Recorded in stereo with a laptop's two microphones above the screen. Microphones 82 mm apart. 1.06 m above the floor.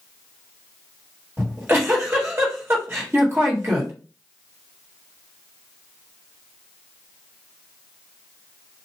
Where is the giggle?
30° right (ahead or behind), 1.7 m.